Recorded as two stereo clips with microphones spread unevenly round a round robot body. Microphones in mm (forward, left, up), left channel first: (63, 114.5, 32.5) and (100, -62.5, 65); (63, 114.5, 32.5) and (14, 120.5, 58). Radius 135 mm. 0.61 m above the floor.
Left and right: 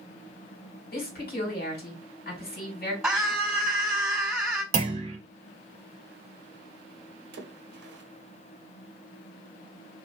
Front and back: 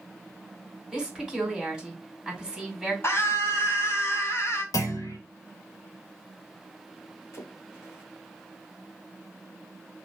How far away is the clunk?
About 0.9 m.